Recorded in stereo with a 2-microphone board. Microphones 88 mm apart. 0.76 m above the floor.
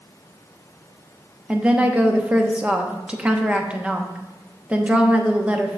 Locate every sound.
1.5 s a woman speaking: 10° right (ahead or behind), 0.8 m